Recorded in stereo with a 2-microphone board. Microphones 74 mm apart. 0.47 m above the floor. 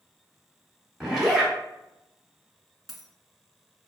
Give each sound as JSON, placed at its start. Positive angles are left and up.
{"t": 1.0, "sound": "a zipper", "side_deg": -5, "distance_m": 1.3}
{"t": 2.9, "sound": "a dropped coin", "side_deg": 0, "distance_m": 0.9}